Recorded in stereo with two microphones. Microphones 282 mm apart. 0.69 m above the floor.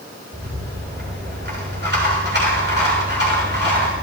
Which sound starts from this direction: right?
A rattle, at 0.3 s.